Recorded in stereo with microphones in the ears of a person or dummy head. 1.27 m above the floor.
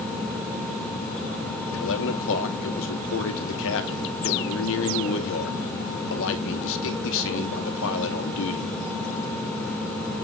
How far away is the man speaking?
About 2 m.